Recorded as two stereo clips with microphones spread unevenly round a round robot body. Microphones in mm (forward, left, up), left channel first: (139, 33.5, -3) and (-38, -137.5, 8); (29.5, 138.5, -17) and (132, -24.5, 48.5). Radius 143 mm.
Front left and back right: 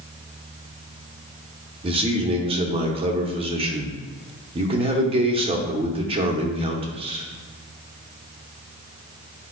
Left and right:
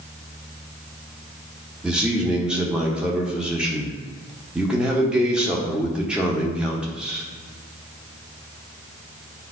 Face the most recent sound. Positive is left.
turn(degrees=180)